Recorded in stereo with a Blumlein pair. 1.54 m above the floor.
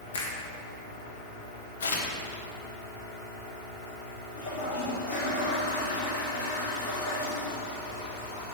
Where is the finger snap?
60° left, 1.3 m.